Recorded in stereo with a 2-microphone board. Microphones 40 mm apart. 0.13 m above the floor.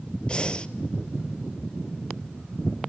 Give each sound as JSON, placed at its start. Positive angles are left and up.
{"t": 0.3, "sound": "breathing", "side_deg": 25, "distance_m": 1.1}